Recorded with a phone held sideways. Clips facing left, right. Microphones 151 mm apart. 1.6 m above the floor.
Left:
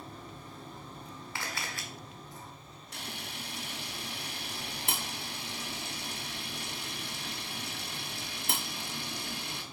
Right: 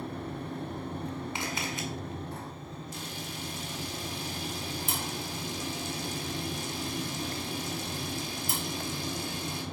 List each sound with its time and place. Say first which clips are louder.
0.0 s a fan: right 10 dB; 70° right (ahead or behind), 0.7 m
1.4 s a camera shutter: right 6 dB; 20° right (ahead or behind), 1.7 m
2.9 s a camera shutter: left 1 dB; 70° left (ahead or behind), 1.7 m